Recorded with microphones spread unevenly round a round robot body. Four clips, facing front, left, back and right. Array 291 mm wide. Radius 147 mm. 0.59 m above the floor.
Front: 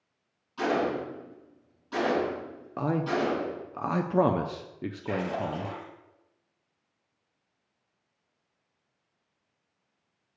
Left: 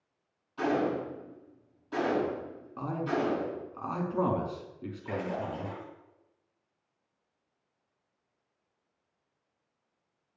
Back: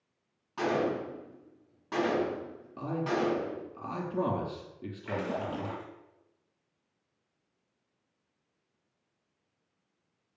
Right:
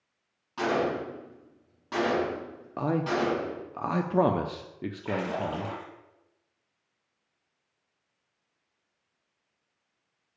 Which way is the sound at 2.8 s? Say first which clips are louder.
Right 4 dB, front 3 dB; 40° right.